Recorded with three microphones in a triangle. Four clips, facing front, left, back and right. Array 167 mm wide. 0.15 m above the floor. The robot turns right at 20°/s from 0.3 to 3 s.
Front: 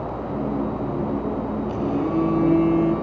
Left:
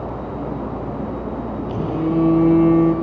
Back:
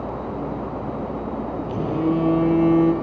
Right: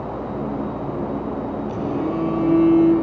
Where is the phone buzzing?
145° left, 4.5 m; by 2.9 s 170° left, 4.5 m.